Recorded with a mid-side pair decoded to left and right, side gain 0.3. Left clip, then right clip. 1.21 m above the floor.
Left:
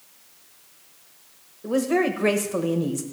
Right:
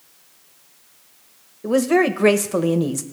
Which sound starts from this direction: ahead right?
A woman speaking, at 1.6 s.